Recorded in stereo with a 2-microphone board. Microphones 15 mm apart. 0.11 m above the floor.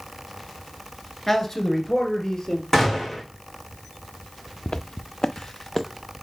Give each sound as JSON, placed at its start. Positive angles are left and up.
{"t": 1.3, "sound": "a man speaking", "side_deg": 20, "distance_m": 1.4}
{"t": 2.7, "sound": "a gunshot", "side_deg": 30, "distance_m": 2.5}
{"t": 4.7, "sound": "footsteps", "side_deg": 75, "distance_m": 0.6}